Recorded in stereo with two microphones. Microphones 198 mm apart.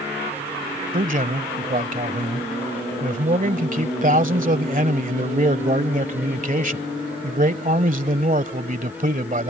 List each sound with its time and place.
0.9 s a man speaking: 40° right (ahead or behind)